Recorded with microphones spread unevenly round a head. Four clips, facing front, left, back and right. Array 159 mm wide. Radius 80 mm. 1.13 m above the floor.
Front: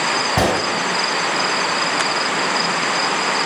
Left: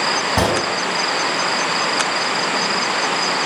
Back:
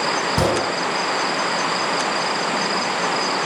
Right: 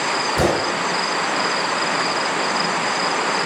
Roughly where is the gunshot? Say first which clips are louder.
Even, front 2 dB; ahead left.